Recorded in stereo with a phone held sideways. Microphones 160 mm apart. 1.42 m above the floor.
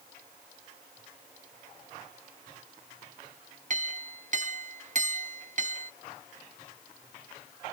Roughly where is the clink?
Right.